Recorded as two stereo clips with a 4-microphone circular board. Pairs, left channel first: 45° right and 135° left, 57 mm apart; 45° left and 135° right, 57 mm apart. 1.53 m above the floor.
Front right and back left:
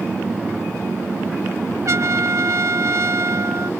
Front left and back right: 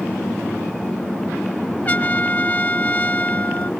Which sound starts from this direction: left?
A trumpet, at 1.9 s.